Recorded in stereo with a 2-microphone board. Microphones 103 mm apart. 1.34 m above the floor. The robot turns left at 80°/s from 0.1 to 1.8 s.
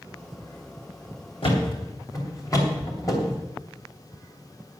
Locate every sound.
1.4 s a thud: 60° left (ahead or behind), 3 m; by 3.4 s 35° left (ahead or behind), 3 m